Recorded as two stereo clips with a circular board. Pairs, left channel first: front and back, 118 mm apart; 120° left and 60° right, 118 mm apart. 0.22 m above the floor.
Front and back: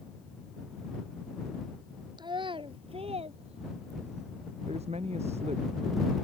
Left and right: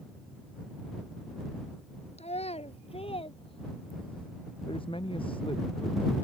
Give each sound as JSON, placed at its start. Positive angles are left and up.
{"t": 2.2, "sound": "a child speaking", "azimuth_deg": 130}
{"t": 4.7, "sound": "a man speaking", "azimuth_deg": 160}